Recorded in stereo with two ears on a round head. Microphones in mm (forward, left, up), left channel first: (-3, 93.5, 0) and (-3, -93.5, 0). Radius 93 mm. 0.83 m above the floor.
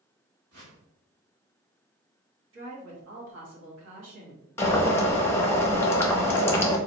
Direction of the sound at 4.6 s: 10° left (ahead or behind).